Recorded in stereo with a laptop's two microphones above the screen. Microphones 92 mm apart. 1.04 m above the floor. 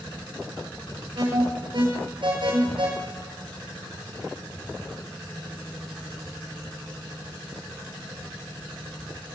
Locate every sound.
1.1 s an alarm: 75° right (ahead or behind), 5 m